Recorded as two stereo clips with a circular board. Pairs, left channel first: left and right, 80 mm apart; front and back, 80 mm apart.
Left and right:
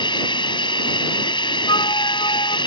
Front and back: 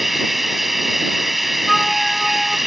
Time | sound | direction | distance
0.0 | running water | 95° left | ?
1.7 | a flute | 90° left | ?